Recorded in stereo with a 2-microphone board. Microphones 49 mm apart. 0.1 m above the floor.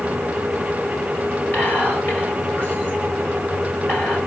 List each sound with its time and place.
1.5 s whispering: 40° left (ahead or behind), 1.9 m